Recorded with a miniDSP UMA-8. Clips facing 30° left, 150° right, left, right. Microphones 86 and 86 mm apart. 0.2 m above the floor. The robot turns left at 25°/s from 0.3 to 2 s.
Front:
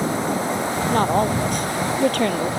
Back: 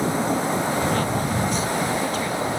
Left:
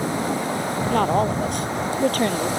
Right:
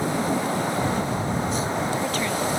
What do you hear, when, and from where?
0.9 s a woman speaking: 80° left; by 2.5 s 50° left